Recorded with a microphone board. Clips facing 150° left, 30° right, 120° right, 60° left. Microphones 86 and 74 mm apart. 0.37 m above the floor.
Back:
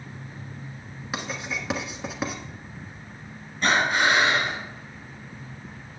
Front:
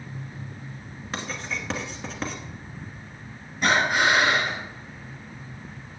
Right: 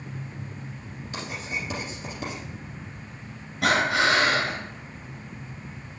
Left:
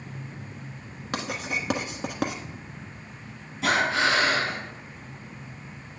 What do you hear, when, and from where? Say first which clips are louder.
1.1 s writing: back 1 dB, left 3 dB; 70° left, 1.2 m
3.6 s breathing: even, right 1 dB; 105° right, 4.5 m